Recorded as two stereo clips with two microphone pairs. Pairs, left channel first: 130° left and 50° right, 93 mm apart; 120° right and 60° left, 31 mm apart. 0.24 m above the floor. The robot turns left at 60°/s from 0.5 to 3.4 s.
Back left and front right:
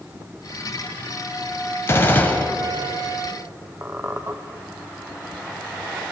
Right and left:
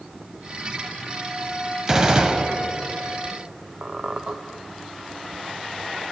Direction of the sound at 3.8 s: 10° left.